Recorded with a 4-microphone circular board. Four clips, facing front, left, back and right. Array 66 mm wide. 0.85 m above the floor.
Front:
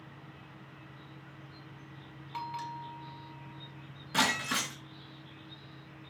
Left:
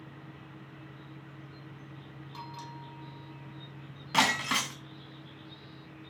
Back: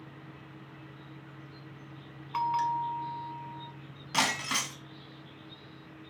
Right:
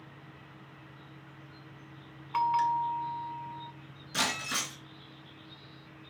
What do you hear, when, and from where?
2.3 s a bell: 125° right, 1.8 m
4.1 s breaking glass: 110° left, 2 m